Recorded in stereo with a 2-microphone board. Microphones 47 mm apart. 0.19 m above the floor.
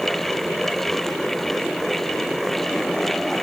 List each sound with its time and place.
Only background noise.